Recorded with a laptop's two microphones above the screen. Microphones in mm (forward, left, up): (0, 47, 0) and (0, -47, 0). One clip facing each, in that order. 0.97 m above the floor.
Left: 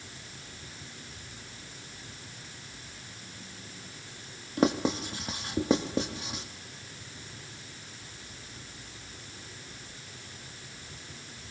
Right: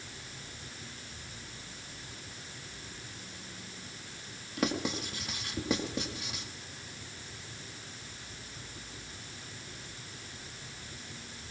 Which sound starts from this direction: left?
Writing, at 4.6 s.